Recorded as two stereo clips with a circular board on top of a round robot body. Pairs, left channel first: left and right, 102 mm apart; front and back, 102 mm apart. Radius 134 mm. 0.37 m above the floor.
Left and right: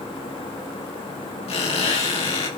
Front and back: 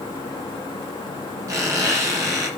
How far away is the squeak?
About 9 m.